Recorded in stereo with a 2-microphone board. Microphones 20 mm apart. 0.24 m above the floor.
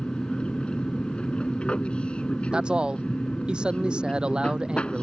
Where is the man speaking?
50° right (ahead or behind).